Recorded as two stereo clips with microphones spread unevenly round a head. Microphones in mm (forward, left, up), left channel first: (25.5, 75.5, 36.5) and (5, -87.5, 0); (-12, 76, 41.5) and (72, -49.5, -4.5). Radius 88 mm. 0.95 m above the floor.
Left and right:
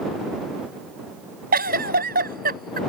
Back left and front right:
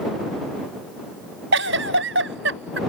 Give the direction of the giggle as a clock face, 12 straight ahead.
2 o'clock.